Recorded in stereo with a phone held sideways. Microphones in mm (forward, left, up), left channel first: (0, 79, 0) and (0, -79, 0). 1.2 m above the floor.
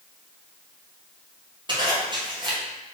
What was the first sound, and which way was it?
A zipper, 30° right (ahead or behind).